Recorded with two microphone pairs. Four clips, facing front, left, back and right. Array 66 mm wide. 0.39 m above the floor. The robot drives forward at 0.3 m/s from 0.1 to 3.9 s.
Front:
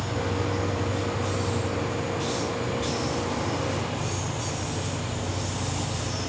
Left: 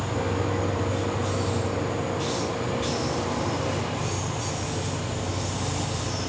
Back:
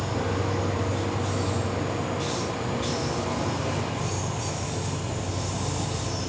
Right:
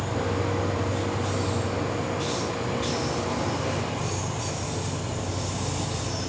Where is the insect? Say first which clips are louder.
Even, back 1 dB; 140° left, 0.8 m; by 6.3 s 170° left, 1.7 m.